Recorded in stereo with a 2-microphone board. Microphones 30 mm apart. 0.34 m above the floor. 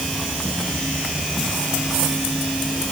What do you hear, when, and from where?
Only background noise.